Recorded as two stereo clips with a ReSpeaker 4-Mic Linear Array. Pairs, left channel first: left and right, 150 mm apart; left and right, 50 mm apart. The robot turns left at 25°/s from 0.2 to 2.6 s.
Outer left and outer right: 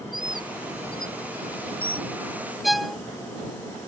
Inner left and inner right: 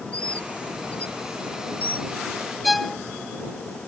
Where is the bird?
85° right; by 2.1 s 35° right (ahead or behind).